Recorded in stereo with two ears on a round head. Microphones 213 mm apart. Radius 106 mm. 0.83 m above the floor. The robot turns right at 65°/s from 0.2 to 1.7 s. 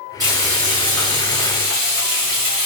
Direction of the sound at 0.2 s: 165° right.